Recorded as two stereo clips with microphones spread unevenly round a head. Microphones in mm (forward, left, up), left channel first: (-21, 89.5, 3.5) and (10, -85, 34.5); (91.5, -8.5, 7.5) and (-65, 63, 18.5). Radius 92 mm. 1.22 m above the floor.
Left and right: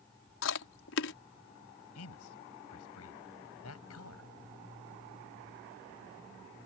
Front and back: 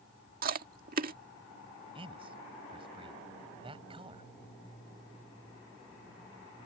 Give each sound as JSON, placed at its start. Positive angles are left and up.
{"t": 0.4, "sound": "chewing", "azimuth_deg": 115}
{"t": 1.9, "sound": "a man speaking", "azimuth_deg": 95}